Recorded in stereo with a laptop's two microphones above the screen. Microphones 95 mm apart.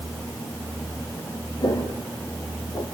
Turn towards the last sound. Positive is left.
turn(degrees=45)  # may be behind; listen again after turning